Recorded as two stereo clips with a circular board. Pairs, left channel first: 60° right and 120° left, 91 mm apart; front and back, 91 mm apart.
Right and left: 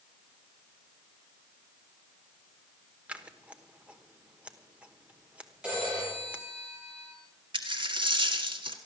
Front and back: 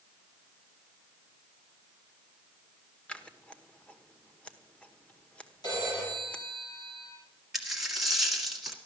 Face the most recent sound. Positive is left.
turn(degrees=90)